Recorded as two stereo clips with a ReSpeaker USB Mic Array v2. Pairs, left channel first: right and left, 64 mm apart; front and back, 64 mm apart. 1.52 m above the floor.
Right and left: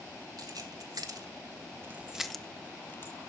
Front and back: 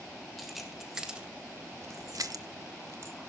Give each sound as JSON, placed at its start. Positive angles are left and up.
{"t": 0.4, "sound": "keys jangling", "azimuth_deg": 90, "distance_m": 2.5}